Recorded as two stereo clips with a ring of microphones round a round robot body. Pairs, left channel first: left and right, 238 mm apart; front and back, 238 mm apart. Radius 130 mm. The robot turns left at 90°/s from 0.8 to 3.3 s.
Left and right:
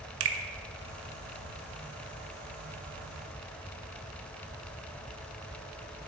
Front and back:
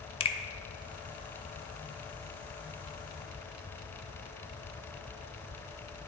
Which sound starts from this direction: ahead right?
A finger snap, at 0.2 s.